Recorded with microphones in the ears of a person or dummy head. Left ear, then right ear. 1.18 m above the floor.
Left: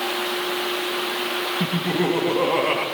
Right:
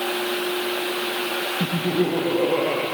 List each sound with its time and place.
1.6 s laughter: 40° left (ahead or behind), 1.8 m